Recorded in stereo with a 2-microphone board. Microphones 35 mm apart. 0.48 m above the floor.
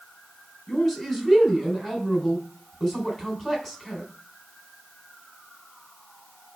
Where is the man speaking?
15° left (ahead or behind), 3 m.